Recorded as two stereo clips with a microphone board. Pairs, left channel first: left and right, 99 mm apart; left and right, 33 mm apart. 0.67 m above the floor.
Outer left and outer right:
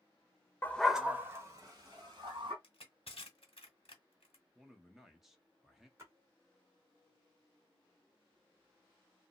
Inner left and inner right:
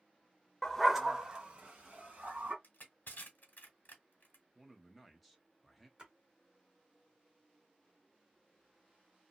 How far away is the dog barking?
About 0.5 m.